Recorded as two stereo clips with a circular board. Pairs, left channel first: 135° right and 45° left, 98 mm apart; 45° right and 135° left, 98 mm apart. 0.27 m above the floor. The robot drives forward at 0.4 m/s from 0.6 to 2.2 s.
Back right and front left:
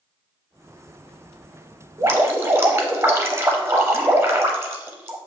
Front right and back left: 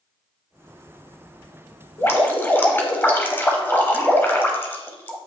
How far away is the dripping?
About 0.6 m.